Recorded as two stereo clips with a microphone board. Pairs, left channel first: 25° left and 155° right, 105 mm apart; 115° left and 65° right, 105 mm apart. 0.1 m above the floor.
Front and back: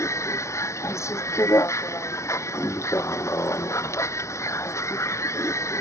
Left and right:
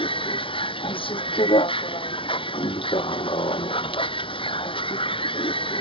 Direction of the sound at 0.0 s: 85° left.